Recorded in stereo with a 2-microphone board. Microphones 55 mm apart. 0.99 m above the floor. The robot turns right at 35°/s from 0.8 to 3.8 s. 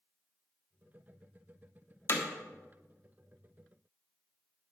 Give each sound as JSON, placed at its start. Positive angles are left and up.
{"t": 2.1, "sound": "hammering", "side_deg": 50, "distance_m": 1.6}